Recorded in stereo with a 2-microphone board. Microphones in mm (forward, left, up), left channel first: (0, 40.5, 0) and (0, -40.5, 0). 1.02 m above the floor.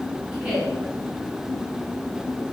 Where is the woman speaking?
10° right (ahead or behind), 9 m.